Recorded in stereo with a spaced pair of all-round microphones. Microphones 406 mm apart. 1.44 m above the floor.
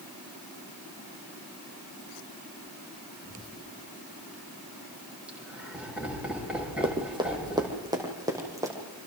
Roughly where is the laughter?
Centre.